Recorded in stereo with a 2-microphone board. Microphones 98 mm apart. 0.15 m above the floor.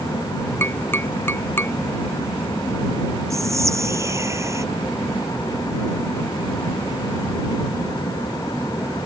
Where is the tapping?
25° left (ahead or behind).